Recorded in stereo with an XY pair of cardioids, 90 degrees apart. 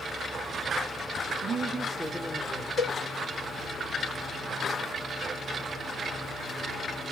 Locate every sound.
1.4 s a woman speaking: 55° right, 0.5 m; by 2.7 s 30° left, 0.8 m
2.8 s a cowbell: 40° left, 1.4 m